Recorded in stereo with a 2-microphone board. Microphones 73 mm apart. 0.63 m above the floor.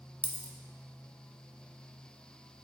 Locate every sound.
0.2 s a dropped coin: 20° left (ahead or behind), 0.7 m